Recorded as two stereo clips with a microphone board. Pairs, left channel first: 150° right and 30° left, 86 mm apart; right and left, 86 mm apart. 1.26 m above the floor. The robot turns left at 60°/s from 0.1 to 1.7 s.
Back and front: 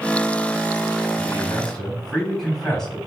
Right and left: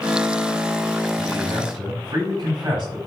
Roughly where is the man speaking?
Behind left.